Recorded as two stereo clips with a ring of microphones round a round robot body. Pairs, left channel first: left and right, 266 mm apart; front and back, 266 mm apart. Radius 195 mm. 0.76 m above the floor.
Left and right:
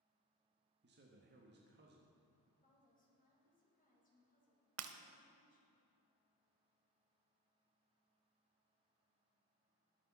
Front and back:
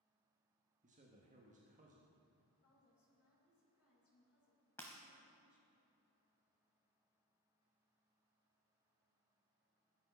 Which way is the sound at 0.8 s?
125° right.